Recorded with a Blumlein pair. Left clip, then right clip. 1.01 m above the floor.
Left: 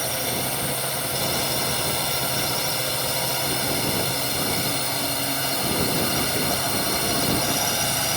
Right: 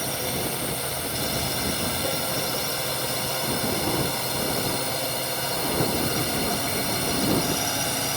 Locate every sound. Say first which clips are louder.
0.0 s a drone: left 2 dB; 10° left